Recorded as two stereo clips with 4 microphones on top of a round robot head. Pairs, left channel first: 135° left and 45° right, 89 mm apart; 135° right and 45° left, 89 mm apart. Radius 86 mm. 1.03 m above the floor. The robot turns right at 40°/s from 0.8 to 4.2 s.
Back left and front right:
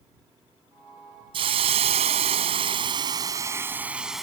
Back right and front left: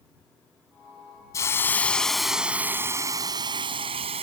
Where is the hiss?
75° right; by 4.2 s 40° left.